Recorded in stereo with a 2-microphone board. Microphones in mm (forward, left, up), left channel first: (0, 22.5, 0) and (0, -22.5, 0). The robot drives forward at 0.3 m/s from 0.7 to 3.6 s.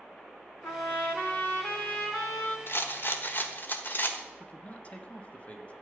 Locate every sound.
0.6 s a trumpet: 40° left (ahead or behind), 2.0 m; by 2.6 s 30° left (ahead or behind), 2.5 m
2.7 s a rattle: 55° left (ahead or behind), 1.2 m; by 4.2 s 45° left (ahead or behind), 1.3 m
4.4 s a man speaking: 30° left (ahead or behind), 1.3 m